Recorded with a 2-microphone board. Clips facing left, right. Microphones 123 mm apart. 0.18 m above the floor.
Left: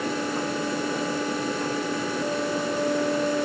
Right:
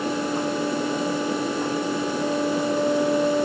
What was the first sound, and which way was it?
Only background noise.